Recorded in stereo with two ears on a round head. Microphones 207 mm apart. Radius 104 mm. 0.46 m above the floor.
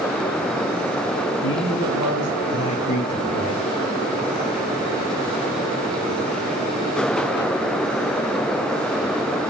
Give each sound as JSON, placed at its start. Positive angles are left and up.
{"t": 1.4, "sound": "a man speaking", "side_deg": 60, "distance_m": 4.0}